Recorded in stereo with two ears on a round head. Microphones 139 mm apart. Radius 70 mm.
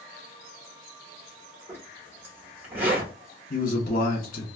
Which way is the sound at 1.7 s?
15° right (ahead or behind).